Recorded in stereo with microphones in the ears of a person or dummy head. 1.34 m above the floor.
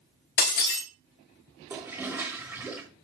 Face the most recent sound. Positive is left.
turn(degrees=-5)  # may be behind; listen again after turning